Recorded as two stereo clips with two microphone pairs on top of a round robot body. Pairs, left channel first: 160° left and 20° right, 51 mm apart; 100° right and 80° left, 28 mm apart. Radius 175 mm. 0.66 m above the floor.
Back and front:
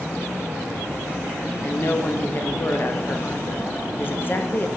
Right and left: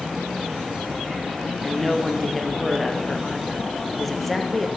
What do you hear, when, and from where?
1.6 s a woman speaking: 170° left, 1.2 m